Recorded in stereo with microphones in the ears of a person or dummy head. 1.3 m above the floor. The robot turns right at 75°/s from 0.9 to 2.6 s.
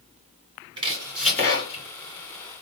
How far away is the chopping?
About 2 m.